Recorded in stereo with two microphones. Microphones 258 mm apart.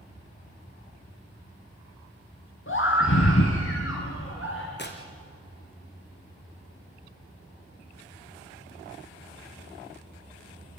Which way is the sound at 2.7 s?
50° left (ahead or behind).